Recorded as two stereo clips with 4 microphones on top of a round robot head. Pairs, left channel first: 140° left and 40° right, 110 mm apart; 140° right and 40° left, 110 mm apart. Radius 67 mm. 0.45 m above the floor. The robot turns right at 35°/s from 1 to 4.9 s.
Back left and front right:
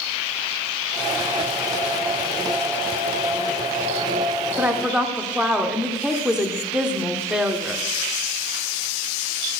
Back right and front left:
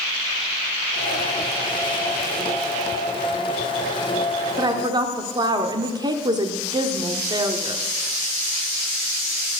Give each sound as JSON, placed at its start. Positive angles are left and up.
{"t": 4.6, "sound": "a woman speaking", "azimuth_deg": 25, "distance_m": 1.1}